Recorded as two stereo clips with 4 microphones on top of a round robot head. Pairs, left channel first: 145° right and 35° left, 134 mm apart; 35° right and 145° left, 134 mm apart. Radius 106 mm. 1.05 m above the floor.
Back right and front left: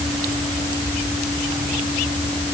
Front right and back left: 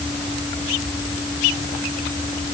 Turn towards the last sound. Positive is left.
No sound to turn to.